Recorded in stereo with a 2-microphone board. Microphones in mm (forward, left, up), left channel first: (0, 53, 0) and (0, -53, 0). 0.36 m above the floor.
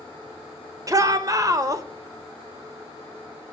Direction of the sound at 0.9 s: 30° right (ahead or behind).